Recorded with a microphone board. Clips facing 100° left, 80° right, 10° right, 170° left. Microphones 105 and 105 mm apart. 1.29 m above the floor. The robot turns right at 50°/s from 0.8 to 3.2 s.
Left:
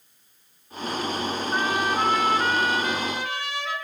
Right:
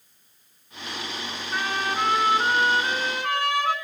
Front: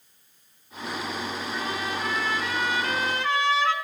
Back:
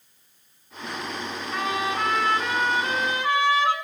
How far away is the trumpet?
About 8 m.